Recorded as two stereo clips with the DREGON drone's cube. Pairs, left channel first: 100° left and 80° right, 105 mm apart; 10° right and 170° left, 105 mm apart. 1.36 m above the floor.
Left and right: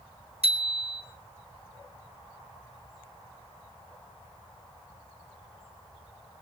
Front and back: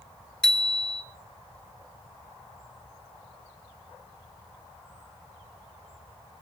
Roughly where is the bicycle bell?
Right.